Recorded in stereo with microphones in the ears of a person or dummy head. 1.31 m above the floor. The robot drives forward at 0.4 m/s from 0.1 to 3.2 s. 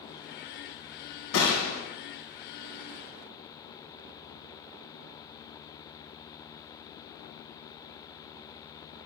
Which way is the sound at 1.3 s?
65° left (ahead or behind).